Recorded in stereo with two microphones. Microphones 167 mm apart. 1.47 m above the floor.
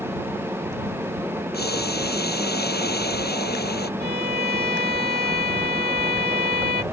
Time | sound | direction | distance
1.5 | boiling | 85° left | ?
4.0 | a violin | 85° right | ?